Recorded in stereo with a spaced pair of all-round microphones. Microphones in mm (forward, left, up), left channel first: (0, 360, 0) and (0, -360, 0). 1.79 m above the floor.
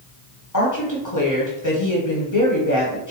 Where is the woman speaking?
25° left (ahead or behind), 1.1 m.